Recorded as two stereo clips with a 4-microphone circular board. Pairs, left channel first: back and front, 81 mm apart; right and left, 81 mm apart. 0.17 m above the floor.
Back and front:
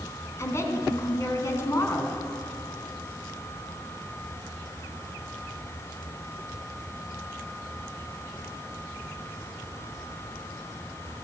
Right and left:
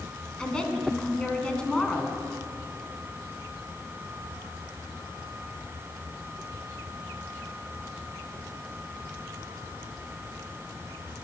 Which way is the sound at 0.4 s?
160° right.